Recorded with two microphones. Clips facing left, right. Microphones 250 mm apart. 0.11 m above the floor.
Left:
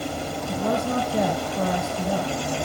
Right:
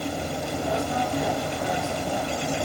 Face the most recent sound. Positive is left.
turn(degrees=75)  # may be behind; listen again after turning